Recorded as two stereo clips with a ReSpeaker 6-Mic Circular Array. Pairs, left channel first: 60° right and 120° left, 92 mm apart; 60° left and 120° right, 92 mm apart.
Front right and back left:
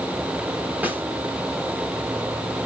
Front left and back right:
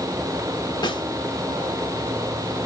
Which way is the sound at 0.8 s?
55° left.